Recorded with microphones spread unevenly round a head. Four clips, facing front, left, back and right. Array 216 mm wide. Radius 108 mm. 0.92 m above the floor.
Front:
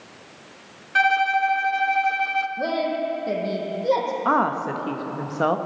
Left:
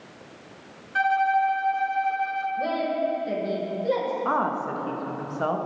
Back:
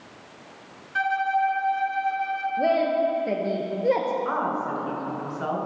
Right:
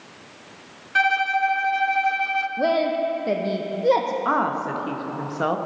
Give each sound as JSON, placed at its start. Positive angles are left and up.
{"t": 0.9, "sound": "a violin", "azimuth_deg": -5, "distance_m": 0.6}
{"t": 2.6, "sound": "a woman speaking", "azimuth_deg": -40, "distance_m": 0.8}
{"t": 4.2, "sound": "a woman speaking", "azimuth_deg": -5, "distance_m": 0.7}